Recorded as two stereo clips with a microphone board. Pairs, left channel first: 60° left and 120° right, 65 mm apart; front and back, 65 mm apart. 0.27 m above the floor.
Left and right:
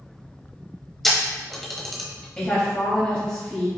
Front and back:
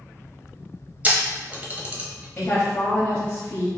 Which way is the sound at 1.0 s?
145° left.